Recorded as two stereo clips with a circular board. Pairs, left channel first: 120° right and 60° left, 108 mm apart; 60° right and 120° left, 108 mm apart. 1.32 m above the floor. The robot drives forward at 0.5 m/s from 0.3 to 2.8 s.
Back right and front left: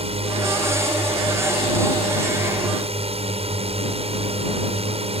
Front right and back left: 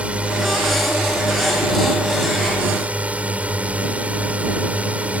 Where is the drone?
40° left; by 5.2 s 45° left.